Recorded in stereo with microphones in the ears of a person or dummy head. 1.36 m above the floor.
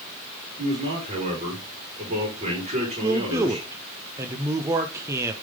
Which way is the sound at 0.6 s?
35° right (ahead or behind).